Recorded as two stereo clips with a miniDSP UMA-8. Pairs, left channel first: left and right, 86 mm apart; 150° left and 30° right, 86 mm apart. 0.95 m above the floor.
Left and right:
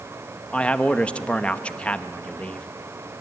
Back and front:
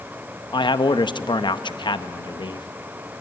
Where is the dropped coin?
No dropped coin in this recording.